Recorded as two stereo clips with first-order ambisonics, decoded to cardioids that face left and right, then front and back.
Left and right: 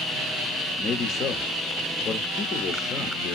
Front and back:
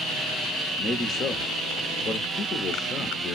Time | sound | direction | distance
0.8 | a man speaking | 45° left | 0.6 m